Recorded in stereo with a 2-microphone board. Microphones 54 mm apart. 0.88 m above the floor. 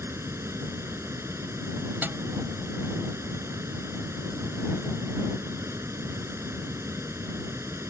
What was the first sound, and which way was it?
Running water, 60° right (ahead or behind).